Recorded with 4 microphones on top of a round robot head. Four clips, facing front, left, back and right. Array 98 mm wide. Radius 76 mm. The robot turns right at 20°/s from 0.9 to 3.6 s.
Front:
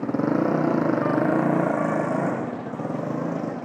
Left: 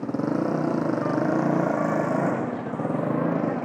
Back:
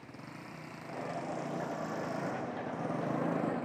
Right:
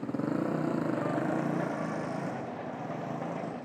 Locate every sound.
0.0 s a motorcycle: 20° left; by 3.7 s 75° left